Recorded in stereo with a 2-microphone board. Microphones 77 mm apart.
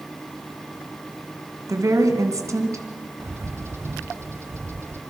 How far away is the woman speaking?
About 3 m.